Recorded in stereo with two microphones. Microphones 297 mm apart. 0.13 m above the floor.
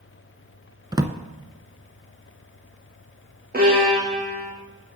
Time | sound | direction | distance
0.9 | a drawer | 15° right (ahead or behind) | 0.5 m
3.5 | a violin | 30° right (ahead or behind) | 3 m